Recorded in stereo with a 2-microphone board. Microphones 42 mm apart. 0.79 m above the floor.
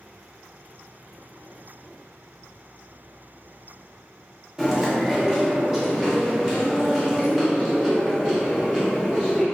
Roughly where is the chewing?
Centre.